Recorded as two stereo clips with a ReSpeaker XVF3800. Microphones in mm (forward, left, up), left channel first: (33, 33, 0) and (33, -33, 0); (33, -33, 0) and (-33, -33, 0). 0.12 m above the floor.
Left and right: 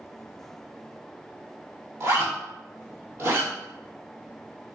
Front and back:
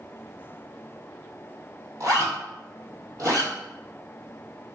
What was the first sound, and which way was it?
A zipper, 140° right.